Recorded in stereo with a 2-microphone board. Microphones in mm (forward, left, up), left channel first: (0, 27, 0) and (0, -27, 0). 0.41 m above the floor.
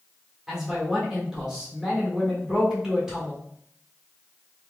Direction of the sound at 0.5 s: 10° right (ahead or behind).